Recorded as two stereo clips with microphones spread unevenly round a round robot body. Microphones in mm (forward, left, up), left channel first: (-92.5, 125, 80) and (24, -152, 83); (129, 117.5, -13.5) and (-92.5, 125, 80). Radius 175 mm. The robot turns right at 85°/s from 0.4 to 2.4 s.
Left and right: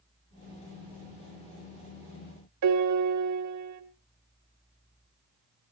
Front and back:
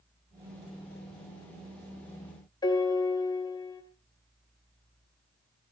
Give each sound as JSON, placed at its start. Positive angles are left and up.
{"t": 2.6, "sound": "a piano", "azimuth_deg": -60, "distance_m": 1.8}